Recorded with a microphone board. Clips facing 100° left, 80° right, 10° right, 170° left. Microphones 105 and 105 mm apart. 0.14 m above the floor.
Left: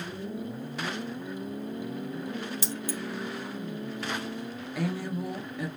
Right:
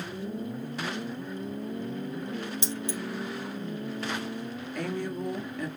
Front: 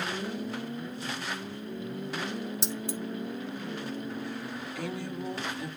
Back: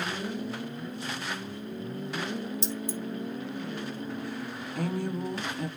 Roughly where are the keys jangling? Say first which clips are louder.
Right 1 dB, back 1 dB; ahead.